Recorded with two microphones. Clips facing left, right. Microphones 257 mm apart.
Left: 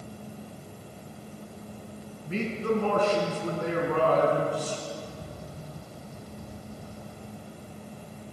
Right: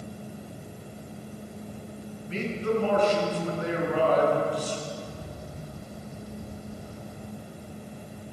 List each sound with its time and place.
2.2 s a man speaking: 55° left (ahead or behind), 4 m
5.0 s a bird: 5° right (ahead or behind), 5.5 m